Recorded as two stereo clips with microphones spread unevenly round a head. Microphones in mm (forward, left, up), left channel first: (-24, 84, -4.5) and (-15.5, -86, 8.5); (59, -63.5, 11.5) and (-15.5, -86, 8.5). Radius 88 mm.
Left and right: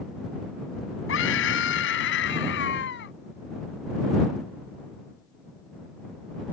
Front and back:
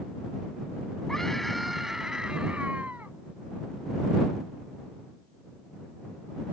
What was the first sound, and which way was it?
A scream, 105° left.